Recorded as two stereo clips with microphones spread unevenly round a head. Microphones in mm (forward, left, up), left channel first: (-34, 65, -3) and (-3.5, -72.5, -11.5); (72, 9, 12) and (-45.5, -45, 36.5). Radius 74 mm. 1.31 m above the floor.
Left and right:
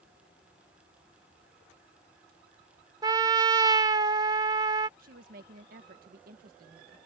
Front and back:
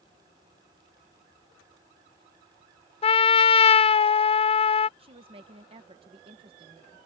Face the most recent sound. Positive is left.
turn(degrees=-105)